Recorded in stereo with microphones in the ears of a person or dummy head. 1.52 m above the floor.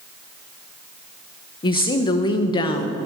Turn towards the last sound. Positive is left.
turn(degrees=35)  # may be behind; listen again after turning